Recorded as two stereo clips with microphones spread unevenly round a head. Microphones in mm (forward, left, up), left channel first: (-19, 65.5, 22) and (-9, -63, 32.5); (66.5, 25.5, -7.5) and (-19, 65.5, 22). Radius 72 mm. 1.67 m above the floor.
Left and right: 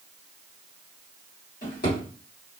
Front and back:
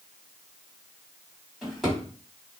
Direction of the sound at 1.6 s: 80° left.